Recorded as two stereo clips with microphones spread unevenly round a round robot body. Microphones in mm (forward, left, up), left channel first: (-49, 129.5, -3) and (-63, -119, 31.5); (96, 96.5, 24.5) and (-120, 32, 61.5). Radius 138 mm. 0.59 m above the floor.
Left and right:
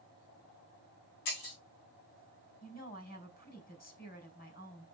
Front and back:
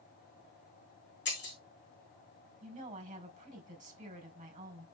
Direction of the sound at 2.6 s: 140° left.